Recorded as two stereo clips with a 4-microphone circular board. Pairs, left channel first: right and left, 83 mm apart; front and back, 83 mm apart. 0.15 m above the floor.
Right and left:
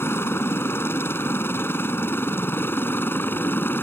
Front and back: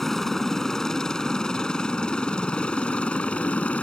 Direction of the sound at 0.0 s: 80° right.